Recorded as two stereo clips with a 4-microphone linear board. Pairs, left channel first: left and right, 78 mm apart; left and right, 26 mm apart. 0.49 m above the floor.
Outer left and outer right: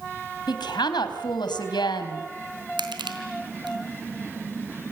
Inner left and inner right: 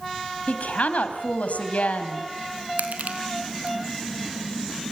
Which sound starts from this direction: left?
A woman speaking, at 0.5 s.